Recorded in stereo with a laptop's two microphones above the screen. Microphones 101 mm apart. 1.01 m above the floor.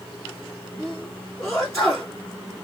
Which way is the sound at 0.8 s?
10° left (ahead or behind).